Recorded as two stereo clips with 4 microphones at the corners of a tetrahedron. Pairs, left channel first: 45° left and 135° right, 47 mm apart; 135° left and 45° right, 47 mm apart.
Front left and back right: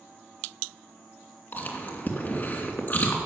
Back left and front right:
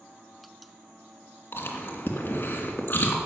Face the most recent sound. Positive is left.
turn(degrees=95)